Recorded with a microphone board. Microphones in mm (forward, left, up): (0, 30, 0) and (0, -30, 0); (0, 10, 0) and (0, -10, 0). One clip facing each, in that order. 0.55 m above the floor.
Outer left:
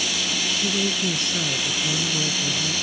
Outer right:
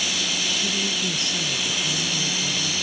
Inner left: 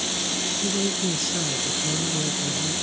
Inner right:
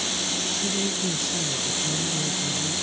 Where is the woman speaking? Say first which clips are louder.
Outer left 2 dB, inner left 1 dB; 30° left (ahead or behind).